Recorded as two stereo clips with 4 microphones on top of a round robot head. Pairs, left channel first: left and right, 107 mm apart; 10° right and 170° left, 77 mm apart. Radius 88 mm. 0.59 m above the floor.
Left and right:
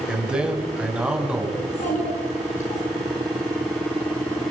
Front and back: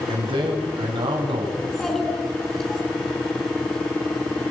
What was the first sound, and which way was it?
A man speaking, 170° right.